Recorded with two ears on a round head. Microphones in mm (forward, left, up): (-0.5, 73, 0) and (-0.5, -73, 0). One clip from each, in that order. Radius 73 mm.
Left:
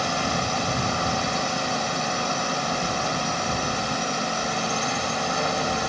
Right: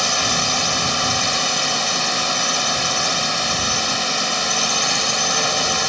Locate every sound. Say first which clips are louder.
0.0 s a drone: right 6 dB; 75° right (ahead or behind)